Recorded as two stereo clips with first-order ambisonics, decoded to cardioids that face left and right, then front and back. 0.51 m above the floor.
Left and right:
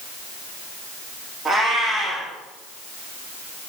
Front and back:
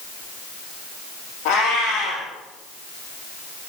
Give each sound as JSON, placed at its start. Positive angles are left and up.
{"t": 1.4, "sound": "a cat meowing", "azimuth_deg": -15, "distance_m": 5.0}